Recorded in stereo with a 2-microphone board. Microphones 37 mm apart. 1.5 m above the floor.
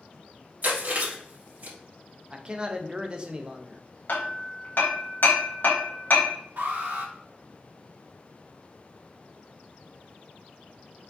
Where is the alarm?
65° right (ahead or behind), 1.6 m.